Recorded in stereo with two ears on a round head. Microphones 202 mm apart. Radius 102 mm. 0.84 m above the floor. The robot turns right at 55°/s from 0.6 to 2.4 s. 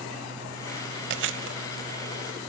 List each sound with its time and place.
1.1 s chewing: 55° right (ahead or behind), 1.0 m; by 2.2 s 35° right (ahead or behind), 1.0 m